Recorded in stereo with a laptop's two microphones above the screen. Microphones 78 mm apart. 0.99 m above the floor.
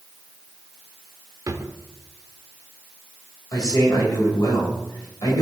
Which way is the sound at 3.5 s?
55° left (ahead or behind).